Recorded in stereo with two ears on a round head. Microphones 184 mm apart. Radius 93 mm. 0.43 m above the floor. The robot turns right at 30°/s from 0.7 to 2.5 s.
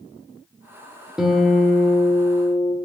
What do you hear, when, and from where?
1.2 s a guitar: 5° right, 1.5 m; by 2.8 s 35° left, 1.5 m